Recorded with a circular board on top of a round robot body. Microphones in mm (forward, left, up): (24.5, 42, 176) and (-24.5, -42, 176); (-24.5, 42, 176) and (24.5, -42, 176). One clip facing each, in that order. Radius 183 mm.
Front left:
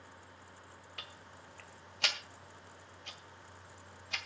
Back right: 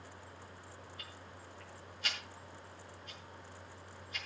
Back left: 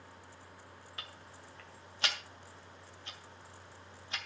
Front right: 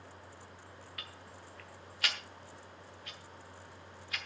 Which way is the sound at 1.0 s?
55° left.